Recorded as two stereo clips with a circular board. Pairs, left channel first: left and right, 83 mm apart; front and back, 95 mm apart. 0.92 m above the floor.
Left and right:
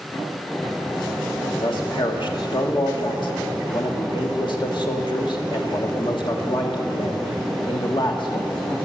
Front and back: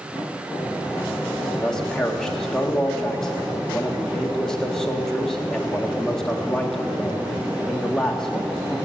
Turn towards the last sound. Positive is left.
turn(degrees=85)